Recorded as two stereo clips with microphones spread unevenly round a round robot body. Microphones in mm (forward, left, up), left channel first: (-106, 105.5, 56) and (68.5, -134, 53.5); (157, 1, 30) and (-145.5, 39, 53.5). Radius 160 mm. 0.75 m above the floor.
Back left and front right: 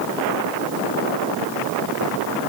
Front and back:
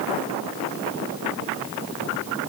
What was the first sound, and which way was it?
Only background noise.